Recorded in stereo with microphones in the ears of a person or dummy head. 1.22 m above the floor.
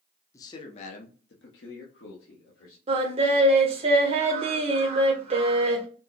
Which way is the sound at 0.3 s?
20° left (ahead or behind).